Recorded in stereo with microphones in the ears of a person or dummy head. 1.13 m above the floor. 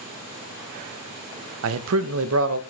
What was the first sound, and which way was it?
A man speaking, 80° right.